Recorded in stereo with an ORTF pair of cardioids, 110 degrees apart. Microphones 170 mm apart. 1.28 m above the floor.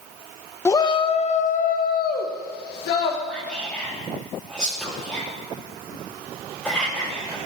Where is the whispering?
Straight ahead, 3.5 m.